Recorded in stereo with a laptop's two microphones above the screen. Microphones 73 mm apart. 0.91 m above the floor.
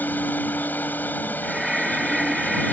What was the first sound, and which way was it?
A machine running, 25° left (ahead or behind).